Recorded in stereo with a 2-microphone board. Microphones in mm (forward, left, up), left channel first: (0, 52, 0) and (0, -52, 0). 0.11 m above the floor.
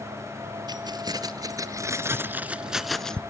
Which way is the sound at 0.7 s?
40° right (ahead or behind).